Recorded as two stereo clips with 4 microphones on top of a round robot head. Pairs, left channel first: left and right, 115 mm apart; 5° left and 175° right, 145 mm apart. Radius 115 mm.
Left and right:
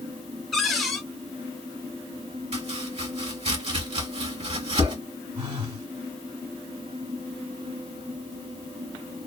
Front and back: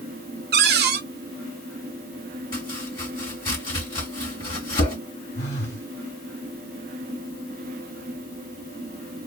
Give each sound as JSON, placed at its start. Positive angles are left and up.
{"t": 0.5, "sound": "a cupboard door", "azimuth_deg": 180, "distance_m": 0.5}
{"t": 2.5, "sound": "chopping", "azimuth_deg": -65, "distance_m": 2.0}
{"t": 5.3, "sound": "a phone buzzing", "azimuth_deg": -50, "distance_m": 1.4}